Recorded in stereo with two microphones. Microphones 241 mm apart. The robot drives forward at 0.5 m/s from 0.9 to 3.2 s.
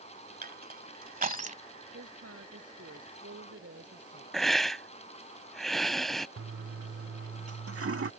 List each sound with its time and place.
0.4 s crushing: 40° right (ahead or behind); by 1.6 s 30° right (ahead or behind)
1.9 s a woman speaking: 80° right; by 4.2 s 75° right (ahead or behind)
4.3 s a hiss: centre (ahead or behind)
6.4 s a toilet flushing: 70° right (ahead or behind)